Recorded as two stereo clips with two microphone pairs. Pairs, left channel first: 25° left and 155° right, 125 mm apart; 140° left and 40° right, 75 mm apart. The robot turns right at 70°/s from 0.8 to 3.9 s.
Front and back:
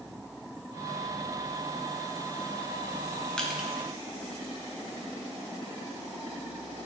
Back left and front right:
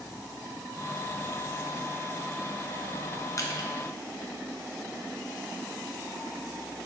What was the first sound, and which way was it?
Crushing, 105° left.